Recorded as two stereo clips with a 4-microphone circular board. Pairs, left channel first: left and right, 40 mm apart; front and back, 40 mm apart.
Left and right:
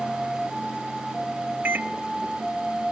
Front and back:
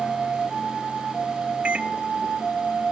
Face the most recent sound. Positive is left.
turn(degrees=-125)